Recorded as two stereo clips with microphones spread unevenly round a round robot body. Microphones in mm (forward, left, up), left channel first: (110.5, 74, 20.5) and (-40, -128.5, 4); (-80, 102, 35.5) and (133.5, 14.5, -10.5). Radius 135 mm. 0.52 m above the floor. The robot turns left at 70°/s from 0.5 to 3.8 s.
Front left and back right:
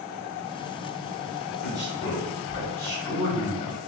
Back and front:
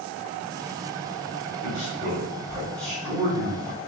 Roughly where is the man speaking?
Behind left.